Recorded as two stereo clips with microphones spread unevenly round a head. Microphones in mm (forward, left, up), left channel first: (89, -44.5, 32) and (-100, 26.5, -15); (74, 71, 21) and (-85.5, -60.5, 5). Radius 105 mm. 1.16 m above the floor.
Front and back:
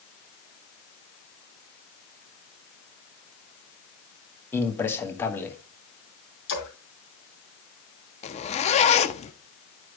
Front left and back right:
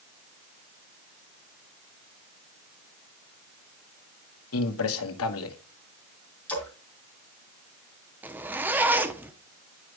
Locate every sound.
4.5 s a man speaking: 60° left, 1.4 m
6.5 s a splash: 45° right, 3.5 m
8.2 s a zipper: 55° right, 0.8 m